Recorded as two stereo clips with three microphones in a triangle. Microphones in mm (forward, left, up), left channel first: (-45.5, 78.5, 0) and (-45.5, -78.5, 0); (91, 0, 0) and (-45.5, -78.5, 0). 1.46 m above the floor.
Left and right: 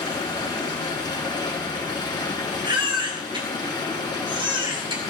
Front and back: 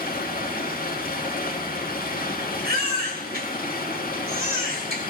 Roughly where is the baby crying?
Behind right.